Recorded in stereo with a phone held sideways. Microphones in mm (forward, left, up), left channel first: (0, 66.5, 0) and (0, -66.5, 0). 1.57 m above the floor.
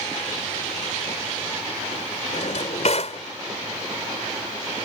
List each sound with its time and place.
2.3 s a drawer: 60° left (ahead or behind)